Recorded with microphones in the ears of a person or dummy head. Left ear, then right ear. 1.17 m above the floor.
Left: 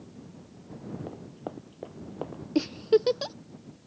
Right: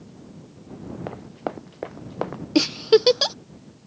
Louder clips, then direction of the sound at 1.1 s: Right 13 dB; 60° right (ahead or behind).